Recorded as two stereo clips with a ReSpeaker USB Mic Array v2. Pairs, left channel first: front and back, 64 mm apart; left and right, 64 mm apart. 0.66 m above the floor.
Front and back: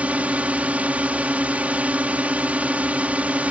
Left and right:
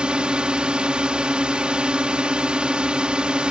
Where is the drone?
145° right.